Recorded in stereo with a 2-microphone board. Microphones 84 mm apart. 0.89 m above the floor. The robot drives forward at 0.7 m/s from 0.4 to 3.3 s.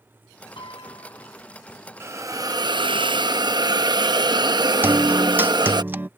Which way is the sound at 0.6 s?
80° left.